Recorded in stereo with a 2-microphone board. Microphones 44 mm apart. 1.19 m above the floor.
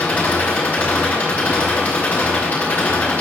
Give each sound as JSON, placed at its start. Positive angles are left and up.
{"t": 0.0, "sound": "an engine running", "side_deg": 35, "distance_m": 9.5}